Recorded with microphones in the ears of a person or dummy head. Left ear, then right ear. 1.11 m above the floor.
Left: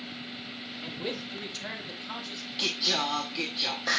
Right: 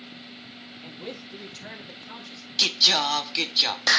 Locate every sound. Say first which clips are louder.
0.8 s a man speaking: left 4 dB; 10° left (ahead or behind), 2.0 m
2.6 s singing: right 8 dB; 65° right (ahead or behind), 0.8 m